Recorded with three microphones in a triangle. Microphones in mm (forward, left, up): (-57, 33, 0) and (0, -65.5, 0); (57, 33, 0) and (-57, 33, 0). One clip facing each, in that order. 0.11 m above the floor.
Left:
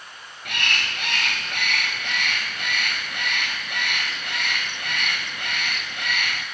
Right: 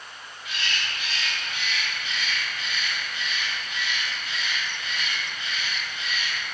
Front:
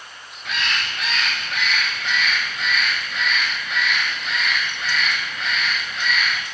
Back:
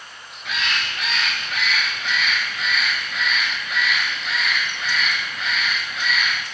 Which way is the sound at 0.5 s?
90° left.